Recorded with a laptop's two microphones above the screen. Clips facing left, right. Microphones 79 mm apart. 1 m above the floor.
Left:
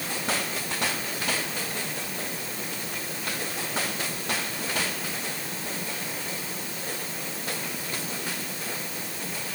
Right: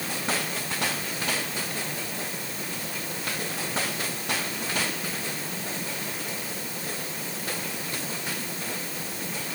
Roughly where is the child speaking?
I don't hear a child speaking.